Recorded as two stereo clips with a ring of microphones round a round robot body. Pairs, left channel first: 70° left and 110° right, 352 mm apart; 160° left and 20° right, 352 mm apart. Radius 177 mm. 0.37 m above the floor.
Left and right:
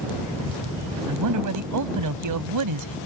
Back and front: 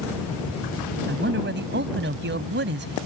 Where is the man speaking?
80° right.